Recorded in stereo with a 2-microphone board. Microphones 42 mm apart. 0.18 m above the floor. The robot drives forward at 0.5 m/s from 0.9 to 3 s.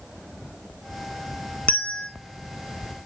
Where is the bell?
25° left (ahead or behind), 0.6 m; by 2.1 s 20° left (ahead or behind), 0.8 m.